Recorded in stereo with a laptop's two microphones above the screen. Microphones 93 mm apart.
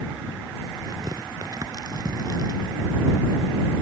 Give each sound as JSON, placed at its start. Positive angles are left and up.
{"t": 0.8, "sound": "tearing paper", "side_deg": -45}